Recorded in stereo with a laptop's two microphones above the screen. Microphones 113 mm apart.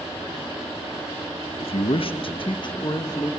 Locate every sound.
1.6 s a man speaking: 60° left (ahead or behind), 1.2 m; by 3.3 s 35° left (ahead or behind), 1.5 m